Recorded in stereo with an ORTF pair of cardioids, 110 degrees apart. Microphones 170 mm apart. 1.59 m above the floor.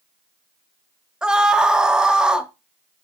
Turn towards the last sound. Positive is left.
turn(degrees=-5)